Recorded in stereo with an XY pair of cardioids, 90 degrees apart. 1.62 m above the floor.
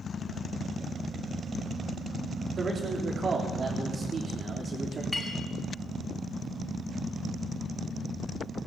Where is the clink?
25° left, 6.5 m.